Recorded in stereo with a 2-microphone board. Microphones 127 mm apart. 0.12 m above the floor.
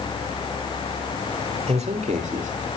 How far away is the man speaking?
About 3 m.